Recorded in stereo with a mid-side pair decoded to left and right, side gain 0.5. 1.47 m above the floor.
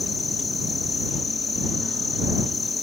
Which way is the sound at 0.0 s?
25° left.